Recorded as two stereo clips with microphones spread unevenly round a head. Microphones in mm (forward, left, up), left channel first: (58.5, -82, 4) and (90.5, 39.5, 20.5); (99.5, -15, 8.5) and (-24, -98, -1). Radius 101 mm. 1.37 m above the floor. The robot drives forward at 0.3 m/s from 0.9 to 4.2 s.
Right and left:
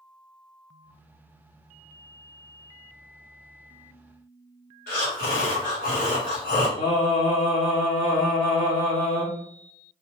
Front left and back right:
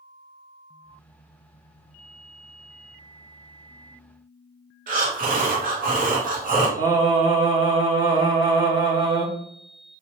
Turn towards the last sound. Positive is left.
turn(degrees=-105)